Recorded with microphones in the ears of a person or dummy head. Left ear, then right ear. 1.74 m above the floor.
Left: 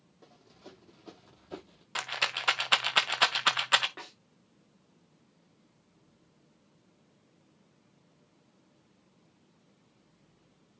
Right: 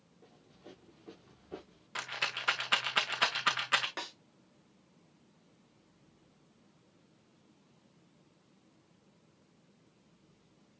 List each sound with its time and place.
0.2 s running footsteps: 50° left (ahead or behind), 3 m; by 1.9 s 35° left (ahead or behind), 2 m
1.9 s a rattle: 15° left (ahead or behind), 0.6 m
4.0 s a snare drum: 75° right (ahead or behind), 4 m